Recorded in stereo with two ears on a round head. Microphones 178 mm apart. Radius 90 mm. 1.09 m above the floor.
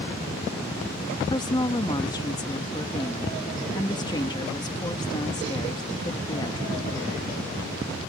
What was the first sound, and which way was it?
A woman speaking, 20° left (ahead or behind).